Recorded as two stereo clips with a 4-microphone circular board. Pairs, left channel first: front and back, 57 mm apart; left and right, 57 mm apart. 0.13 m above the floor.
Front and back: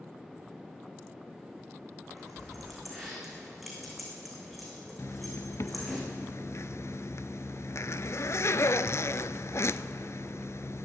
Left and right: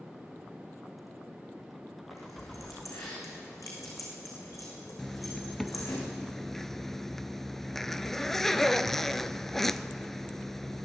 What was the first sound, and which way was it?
Keys jangling, 90° left.